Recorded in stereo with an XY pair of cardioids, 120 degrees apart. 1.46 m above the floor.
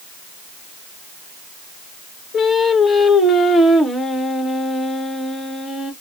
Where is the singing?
25° left, 1.6 m.